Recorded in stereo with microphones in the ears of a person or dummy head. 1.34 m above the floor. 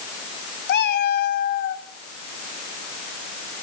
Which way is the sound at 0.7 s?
60° left (ahead or behind).